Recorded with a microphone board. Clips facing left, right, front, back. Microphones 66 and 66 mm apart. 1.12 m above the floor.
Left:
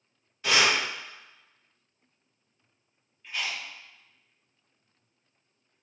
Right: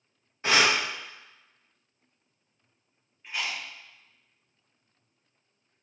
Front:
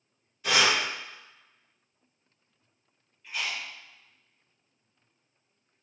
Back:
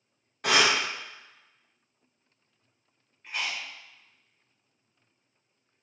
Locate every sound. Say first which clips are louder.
0.4 s breathing: right 1 dB, back 1 dB; 150° right, 0.7 m
3.2 s chewing: right 1 dB, even; 150° right, 1.0 m